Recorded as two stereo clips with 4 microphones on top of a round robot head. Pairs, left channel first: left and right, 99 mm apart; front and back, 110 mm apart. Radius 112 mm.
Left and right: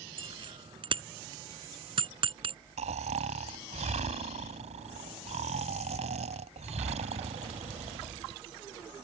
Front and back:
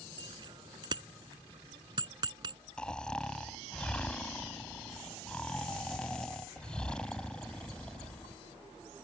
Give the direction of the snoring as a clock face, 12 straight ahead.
3 o'clock.